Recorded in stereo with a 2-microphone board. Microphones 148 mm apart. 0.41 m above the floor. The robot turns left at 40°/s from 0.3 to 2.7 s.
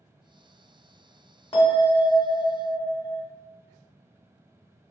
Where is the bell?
75° left, 1.1 m; by 3.2 s 25° left, 1.1 m.